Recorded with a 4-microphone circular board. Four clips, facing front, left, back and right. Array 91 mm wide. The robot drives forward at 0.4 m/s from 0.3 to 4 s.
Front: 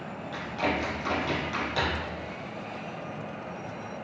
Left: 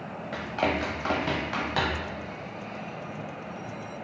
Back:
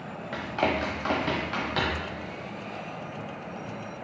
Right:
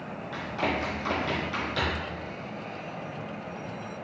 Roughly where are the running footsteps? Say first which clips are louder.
Left 2 dB, back 2 dB; behind left.